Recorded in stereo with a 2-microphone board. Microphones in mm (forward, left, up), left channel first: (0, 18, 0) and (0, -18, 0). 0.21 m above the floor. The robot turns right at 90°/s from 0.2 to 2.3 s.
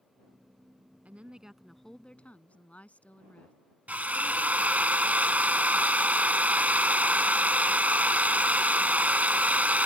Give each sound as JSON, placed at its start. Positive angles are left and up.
{"t": 1.1, "sound": "a woman speaking", "azimuth_deg": -60}
{"t": 3.9, "sound": "a drill", "side_deg": -50}